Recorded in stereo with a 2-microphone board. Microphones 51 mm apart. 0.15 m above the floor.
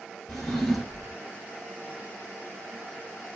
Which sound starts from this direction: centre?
A drawer, at 0.3 s.